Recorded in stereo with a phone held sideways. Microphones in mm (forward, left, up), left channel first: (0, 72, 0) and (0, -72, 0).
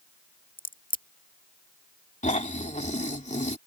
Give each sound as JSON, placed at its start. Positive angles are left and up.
{"t": 0.6, "sound": "a crack", "side_deg": 75}
{"t": 2.2, "sound": "snoring", "side_deg": 55}